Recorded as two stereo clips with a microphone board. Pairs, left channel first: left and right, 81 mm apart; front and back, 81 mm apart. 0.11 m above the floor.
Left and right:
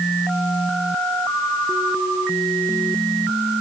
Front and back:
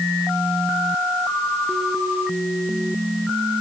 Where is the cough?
No cough in this recording.